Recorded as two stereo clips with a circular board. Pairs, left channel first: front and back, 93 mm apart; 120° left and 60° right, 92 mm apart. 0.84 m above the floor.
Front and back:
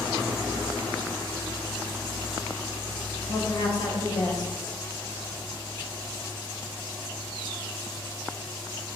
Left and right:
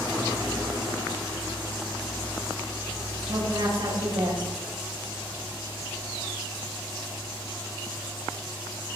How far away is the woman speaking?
About 4.5 m.